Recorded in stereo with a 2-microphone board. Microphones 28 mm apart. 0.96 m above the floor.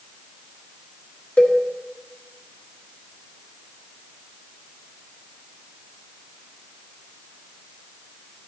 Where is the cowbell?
55° left (ahead or behind), 1.4 m.